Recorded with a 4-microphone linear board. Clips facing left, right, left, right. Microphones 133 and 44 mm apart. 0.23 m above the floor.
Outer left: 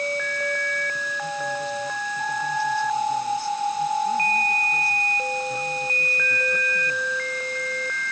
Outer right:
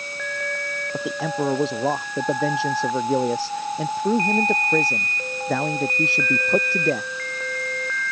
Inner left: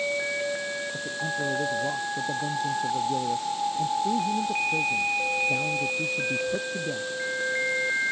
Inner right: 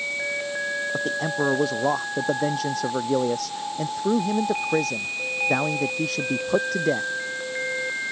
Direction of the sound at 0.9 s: 80° right.